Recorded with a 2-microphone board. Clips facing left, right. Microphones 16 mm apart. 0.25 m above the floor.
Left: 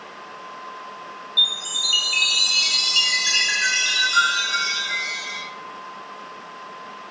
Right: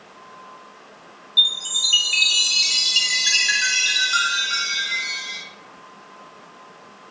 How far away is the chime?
About 0.7 m.